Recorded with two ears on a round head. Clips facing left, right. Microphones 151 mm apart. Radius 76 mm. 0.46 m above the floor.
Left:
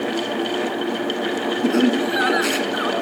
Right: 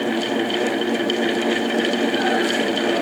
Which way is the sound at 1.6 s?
75° left (ahead or behind).